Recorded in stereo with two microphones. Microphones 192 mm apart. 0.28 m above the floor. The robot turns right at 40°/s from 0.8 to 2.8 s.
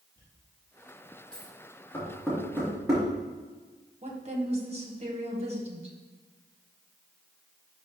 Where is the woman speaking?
35° right (ahead or behind), 1.5 m.